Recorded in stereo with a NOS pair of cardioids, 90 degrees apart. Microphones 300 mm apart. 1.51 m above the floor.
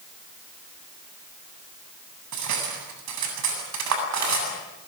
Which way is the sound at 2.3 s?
65° right.